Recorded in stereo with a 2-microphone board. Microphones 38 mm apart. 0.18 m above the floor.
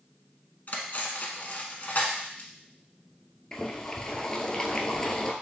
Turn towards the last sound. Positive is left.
turn(degrees=20)  # may be behind; listen again after turning